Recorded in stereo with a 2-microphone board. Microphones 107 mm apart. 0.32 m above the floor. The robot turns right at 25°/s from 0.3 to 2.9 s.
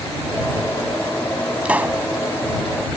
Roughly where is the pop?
Centre.